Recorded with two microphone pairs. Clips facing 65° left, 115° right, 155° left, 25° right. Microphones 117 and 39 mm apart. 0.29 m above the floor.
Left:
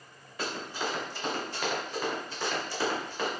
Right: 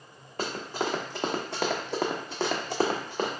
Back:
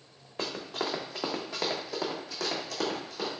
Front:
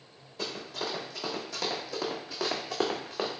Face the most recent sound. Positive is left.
turn(degrees=-70)